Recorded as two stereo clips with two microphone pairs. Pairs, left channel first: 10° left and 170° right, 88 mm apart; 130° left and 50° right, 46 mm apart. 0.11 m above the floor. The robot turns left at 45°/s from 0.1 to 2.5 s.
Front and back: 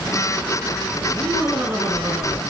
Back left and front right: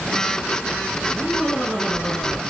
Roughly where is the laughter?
Behind.